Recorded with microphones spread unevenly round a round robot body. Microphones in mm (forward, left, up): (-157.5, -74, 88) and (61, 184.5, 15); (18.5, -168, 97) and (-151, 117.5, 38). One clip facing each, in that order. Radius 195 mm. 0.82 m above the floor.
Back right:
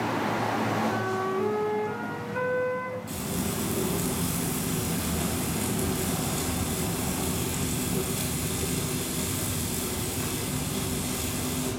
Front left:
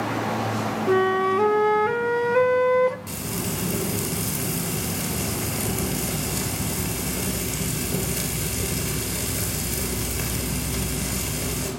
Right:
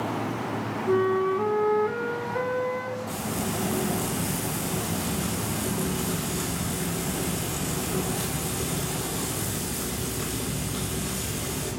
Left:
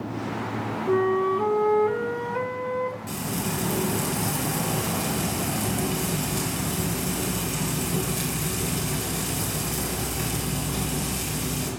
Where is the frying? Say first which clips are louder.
Front left 1 dB, even; 45° left, 3.5 m.